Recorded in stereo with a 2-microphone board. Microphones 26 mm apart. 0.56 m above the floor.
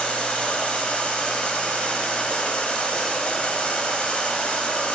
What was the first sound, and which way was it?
Running water, 50° left (ahead or behind).